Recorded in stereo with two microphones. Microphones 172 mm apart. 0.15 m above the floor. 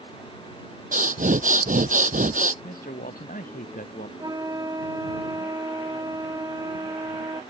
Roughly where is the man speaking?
Left.